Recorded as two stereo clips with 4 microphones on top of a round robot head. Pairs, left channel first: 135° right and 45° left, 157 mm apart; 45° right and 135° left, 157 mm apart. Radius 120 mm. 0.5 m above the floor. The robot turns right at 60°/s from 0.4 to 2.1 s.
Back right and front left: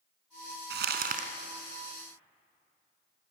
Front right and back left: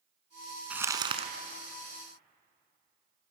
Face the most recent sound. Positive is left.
turn(degrees=140)